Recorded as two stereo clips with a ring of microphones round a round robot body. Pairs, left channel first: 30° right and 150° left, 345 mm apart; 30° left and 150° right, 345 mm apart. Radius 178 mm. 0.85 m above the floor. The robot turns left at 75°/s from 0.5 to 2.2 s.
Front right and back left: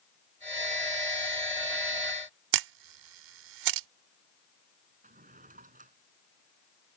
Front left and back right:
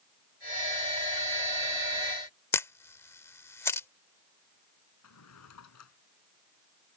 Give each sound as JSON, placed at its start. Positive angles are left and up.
{"t": 2.5, "sound": "a camera shutter", "azimuth_deg": 115}
{"t": 5.0, "sound": "a drawer", "azimuth_deg": 80}